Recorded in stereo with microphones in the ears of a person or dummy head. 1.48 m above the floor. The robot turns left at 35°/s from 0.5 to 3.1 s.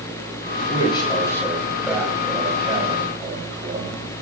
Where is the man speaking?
35° left, 4 m; by 4.0 s 45° right, 4 m.